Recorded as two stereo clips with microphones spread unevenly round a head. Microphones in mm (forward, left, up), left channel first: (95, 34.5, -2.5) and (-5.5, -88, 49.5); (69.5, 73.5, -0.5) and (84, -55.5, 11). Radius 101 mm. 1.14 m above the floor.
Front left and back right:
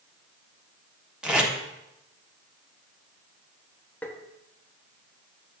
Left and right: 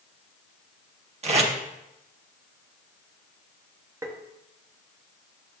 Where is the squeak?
No squeak in this recording.